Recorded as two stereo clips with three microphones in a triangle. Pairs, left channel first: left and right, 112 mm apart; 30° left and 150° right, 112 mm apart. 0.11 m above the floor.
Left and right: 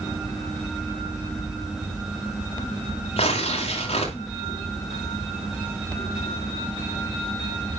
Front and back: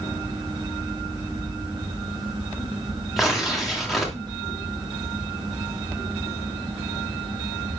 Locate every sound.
3.2 s tearing paper: 120° left, 2.5 m